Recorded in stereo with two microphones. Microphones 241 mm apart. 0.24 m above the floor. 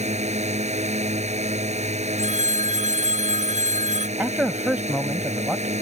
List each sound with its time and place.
0.0 s a drone: 30° right (ahead or behind)
2.2 s a phone ringing: 30° right (ahead or behind)
4.2 s a man speaking: 5° right (ahead or behind)